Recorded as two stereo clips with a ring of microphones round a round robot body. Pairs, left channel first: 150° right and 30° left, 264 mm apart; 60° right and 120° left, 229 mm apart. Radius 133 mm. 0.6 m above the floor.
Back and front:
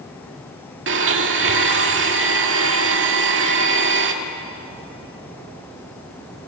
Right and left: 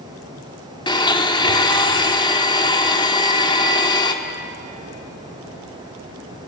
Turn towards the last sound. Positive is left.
turn(degrees=5)